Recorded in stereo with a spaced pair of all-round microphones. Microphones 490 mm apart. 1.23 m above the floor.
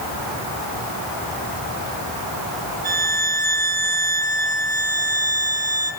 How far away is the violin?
About 3.5 m.